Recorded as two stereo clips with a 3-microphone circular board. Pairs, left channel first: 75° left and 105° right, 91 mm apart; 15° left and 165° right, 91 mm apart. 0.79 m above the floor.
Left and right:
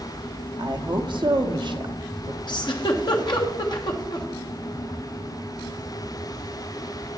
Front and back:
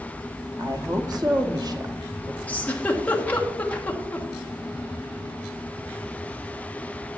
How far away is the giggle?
About 1.2 m.